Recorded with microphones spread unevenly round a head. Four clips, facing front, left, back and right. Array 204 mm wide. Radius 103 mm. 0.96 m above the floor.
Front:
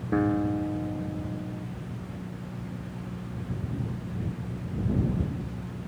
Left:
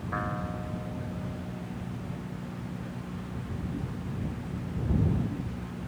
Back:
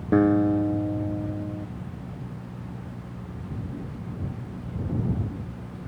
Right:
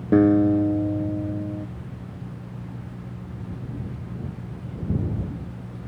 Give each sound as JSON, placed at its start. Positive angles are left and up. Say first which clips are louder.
{"t": 0.1, "sound": "a guitar", "louder": "right 19 dB, back 6 dB", "azimuth_deg": -95}